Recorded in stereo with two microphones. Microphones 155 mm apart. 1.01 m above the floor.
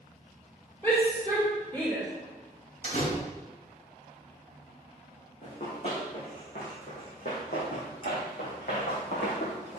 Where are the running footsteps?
45° left (ahead or behind), 4 m; by 9.8 s 70° left (ahead or behind), 3.5 m.